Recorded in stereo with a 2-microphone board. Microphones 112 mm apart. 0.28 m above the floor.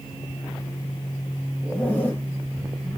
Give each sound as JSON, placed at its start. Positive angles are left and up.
{"t": 1.6, "sound": "a zipper", "side_deg": 15, "distance_m": 6.5}